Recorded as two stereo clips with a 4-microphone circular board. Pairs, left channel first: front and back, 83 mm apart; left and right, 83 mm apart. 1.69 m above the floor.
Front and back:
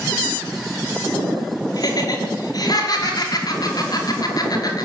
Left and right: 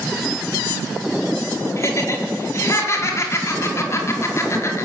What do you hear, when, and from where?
1.8 s laughter: 35° left, 5 m